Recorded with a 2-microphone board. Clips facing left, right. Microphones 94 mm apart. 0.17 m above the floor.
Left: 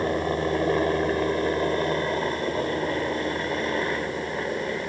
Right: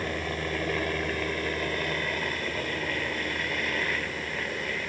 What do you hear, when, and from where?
0.0 s a helicopter: 30° left (ahead or behind); by 4.9 s 25° left (ahead or behind)